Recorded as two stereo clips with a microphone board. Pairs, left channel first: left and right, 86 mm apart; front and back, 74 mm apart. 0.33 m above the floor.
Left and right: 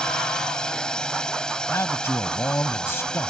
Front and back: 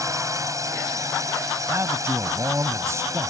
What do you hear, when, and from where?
0.0 s a drone: 170° left
1.7 s a man speaking: 145° left